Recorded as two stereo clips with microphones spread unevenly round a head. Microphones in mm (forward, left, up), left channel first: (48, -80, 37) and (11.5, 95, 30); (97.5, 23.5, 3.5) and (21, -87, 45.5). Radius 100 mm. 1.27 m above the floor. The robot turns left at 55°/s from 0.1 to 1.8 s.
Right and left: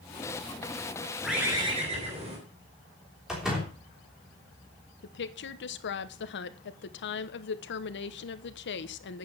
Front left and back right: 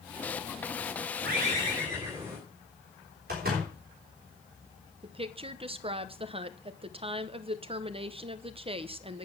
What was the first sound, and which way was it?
A bird, 165° right.